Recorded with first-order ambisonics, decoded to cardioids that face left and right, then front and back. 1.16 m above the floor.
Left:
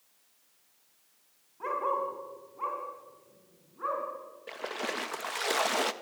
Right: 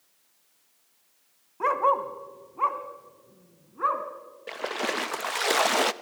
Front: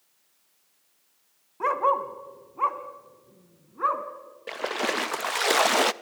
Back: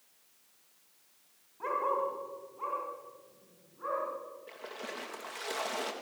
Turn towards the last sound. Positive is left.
turn(degrees=-20)